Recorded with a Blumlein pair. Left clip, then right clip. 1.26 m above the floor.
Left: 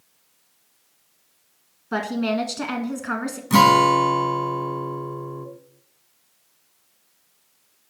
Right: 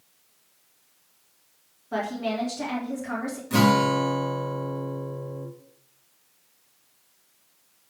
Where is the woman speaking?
65° left, 1.3 m.